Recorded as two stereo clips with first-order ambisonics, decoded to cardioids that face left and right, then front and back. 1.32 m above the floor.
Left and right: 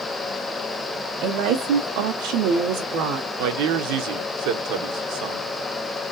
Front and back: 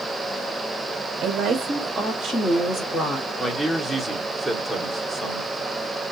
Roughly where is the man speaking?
Right.